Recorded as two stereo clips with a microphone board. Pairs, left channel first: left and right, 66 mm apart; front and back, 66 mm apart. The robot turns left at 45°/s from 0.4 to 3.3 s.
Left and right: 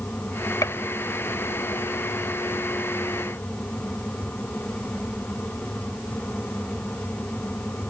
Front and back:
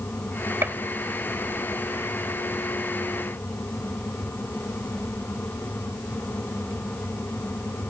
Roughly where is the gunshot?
Behind left.